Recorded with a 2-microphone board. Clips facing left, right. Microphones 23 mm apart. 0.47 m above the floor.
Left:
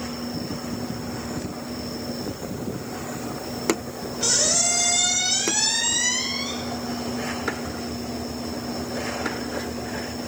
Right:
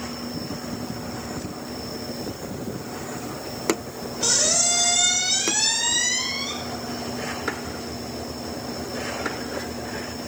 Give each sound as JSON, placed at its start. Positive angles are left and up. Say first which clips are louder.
{"t": 4.2, "sound": "a squeak", "louder": "even", "side_deg": 0, "distance_m": 2.0}